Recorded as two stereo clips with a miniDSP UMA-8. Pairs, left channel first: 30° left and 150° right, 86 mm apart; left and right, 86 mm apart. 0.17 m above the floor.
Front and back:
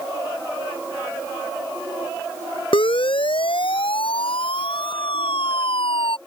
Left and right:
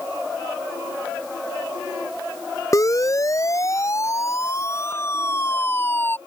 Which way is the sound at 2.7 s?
40° left.